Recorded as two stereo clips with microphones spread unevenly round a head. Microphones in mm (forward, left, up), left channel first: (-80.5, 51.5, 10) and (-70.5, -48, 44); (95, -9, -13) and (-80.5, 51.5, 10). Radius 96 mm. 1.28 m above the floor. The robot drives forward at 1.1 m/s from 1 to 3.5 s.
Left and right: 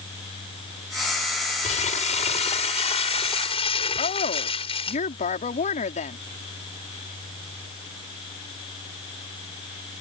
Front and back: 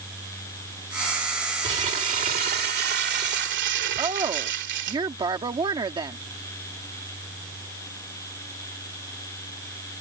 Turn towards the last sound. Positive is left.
turn(degrees=95)